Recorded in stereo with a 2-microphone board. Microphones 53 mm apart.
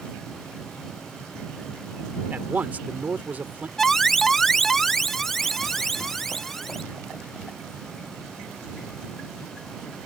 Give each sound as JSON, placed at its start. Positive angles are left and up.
{"t": 2.3, "sound": "a man speaking", "side_deg": -35}
{"t": 3.8, "sound": "an alarm", "side_deg": 5}